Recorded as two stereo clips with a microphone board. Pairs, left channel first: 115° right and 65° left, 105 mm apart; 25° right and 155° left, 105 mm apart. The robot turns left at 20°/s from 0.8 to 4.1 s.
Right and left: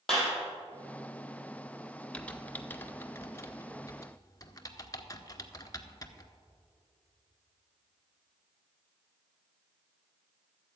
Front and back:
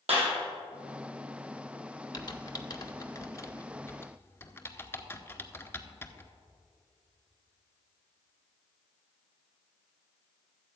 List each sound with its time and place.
0.1 s a clap: 160° left, 4 m
2.1 s typing on a keyboard: 40° right, 0.7 m; by 6.3 s 80° right, 0.7 m